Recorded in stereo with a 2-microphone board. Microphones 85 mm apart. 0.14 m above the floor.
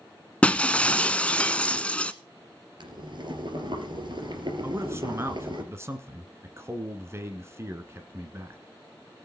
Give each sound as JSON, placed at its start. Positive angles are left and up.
{"t": 0.4, "sound": "breaking glass", "side_deg": 15, "distance_m": 0.6}
{"t": 2.8, "sound": "boiling", "side_deg": -60, "distance_m": 3.0}
{"t": 4.6, "sound": "a man speaking", "side_deg": -30, "distance_m": 1.5}